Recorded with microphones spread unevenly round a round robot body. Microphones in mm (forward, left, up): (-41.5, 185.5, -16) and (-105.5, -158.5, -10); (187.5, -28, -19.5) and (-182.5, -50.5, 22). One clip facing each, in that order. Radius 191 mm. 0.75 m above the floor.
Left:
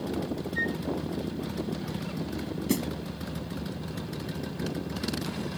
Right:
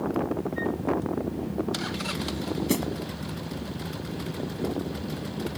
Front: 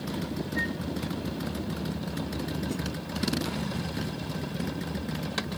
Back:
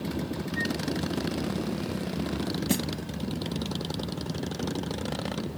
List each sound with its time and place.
0.6 s a flute: 95° left
2.7 s a snare drum: 165° left